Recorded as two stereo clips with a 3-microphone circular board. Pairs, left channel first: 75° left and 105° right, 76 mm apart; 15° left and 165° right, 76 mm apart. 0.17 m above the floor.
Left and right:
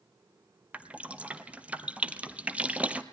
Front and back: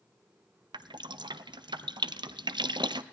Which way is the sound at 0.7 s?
175° right.